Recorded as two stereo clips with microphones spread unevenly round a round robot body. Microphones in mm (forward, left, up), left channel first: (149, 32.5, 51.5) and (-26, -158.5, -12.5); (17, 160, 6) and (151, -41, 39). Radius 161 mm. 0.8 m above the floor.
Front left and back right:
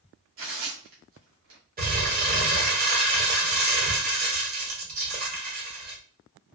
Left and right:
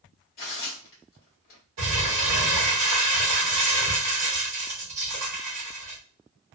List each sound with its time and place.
0.4 s tearing paper: straight behind, 0.8 m
1.8 s crumpling: 75° right, 1.1 m